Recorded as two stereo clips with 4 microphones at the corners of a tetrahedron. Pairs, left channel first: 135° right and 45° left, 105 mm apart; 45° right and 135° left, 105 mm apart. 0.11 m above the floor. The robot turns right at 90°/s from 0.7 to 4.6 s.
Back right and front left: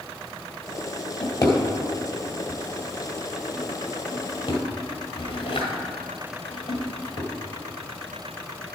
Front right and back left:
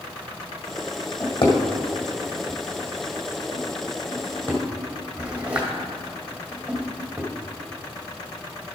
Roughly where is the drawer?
Right.